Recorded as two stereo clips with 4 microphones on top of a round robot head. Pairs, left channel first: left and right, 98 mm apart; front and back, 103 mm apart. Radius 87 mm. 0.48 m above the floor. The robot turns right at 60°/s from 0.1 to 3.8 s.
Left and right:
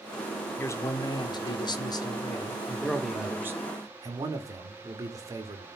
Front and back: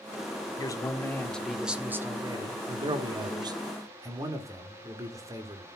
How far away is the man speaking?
About 1.5 m.